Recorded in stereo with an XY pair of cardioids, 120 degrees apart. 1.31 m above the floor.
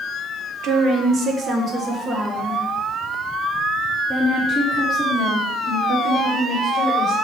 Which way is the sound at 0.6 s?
65° right.